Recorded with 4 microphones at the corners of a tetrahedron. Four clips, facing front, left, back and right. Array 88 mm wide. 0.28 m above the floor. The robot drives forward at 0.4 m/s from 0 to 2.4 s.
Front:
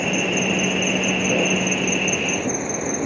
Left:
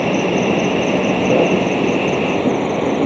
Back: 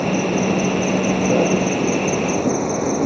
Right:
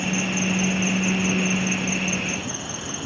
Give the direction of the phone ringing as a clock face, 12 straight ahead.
No phone ringing in this recording.